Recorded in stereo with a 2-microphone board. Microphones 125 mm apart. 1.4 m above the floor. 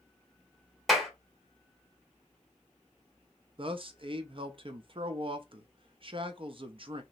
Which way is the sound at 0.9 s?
Centre (ahead or behind).